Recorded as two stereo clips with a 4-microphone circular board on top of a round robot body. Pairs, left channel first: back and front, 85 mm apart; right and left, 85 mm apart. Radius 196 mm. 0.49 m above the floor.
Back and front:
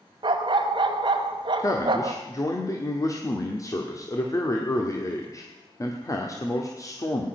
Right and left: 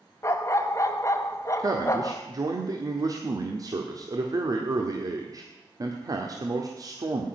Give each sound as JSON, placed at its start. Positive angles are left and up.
{"t": 0.2, "sound": "a dog barking", "azimuth_deg": -30, "distance_m": 0.7}
{"t": 1.6, "sound": "a man speaking", "azimuth_deg": 135, "distance_m": 1.6}